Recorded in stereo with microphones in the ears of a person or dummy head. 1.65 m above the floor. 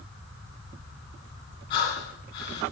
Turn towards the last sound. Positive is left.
turn(degrees=25)  # may be behind; listen again after turning